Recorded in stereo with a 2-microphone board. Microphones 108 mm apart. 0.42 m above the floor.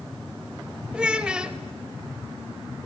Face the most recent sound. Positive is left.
turn(degrees=-10)  # may be behind; listen again after turning